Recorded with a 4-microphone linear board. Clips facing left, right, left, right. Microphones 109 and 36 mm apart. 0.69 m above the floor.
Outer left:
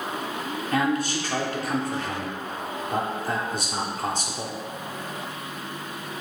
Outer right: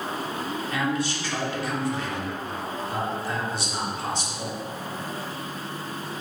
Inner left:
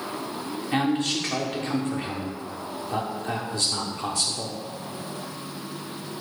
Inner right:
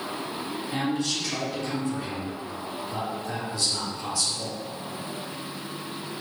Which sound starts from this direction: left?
A man speaking, at 0.7 s.